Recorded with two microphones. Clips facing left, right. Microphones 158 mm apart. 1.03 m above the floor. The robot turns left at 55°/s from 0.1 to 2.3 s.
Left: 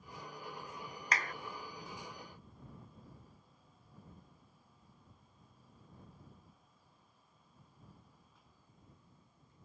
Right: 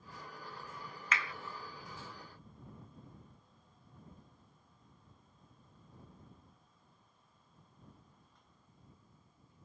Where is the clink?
No clink in this recording.